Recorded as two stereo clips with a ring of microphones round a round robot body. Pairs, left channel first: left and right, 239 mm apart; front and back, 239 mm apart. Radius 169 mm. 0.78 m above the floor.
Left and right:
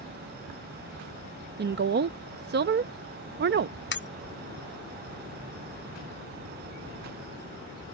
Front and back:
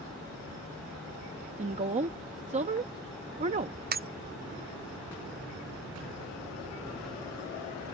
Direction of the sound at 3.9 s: 130° left.